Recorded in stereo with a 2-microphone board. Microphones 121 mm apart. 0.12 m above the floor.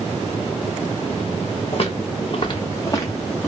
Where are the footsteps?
55° left (ahead or behind), 2 m; by 3.5 s 15° left (ahead or behind), 2 m.